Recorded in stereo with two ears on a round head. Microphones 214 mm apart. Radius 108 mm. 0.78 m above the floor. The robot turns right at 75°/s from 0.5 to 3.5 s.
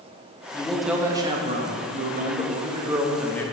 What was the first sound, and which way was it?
A man speaking, 160° left.